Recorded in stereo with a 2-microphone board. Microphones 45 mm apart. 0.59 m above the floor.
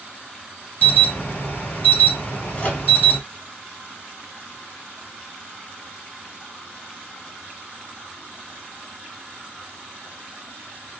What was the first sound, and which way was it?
An alarm, 40° left (ahead or behind).